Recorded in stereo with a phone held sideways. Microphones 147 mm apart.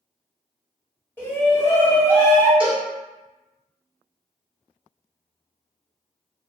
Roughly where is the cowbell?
Centre.